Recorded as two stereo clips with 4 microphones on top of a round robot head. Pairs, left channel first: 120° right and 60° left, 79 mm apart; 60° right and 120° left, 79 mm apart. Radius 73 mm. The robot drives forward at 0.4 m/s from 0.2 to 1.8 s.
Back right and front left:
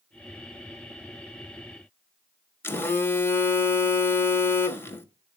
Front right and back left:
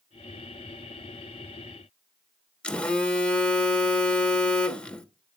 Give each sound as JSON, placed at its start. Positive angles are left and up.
{"t": 2.6, "sound": "a phone buzzing", "azimuth_deg": -115, "distance_m": 1.3}